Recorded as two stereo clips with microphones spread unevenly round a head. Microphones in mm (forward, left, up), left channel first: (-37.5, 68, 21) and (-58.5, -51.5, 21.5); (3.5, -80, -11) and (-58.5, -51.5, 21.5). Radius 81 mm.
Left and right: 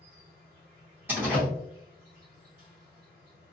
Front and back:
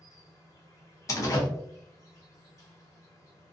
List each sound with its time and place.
0.0 s an insect: 80° right, 1.9 m
1.1 s a door slam: 55° right, 0.8 m